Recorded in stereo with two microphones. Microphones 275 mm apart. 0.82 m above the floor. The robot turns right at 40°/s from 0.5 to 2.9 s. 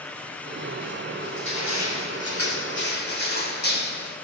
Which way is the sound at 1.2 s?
75° left.